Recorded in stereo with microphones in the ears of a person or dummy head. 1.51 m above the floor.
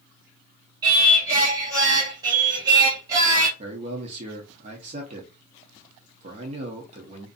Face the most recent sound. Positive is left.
turn(degrees=-40)  # may be behind; listen again after turning